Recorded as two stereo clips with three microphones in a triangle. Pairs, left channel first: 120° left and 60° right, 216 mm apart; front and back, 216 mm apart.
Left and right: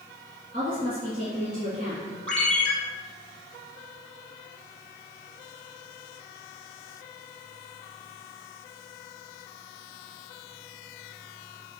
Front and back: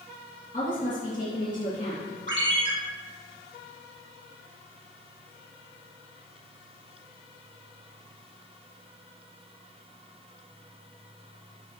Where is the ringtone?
155° right, 3 m.